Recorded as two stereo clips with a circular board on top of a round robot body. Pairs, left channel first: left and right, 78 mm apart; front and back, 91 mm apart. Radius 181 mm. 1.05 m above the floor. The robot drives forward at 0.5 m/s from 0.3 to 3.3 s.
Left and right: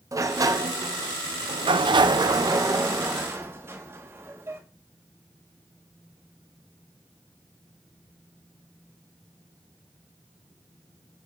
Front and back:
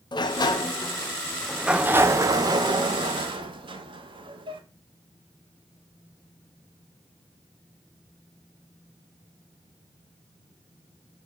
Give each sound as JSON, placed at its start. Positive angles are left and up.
{"t": 0.1, "sound": "a sliding door", "azimuth_deg": -40, "distance_m": 0.8}